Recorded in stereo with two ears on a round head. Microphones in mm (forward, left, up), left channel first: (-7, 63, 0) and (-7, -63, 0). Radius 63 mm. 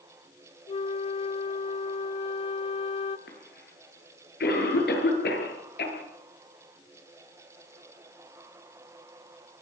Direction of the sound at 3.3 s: 80° left.